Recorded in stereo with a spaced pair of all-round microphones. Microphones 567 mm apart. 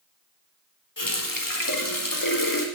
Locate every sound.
1.0 s a running tap: 35° left (ahead or behind), 1.8 m